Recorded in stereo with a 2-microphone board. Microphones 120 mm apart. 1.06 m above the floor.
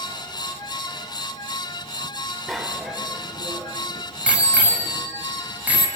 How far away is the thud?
I don't hear a thud.